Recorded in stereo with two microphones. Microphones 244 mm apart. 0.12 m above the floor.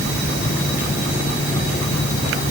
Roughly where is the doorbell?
I don't hear a doorbell.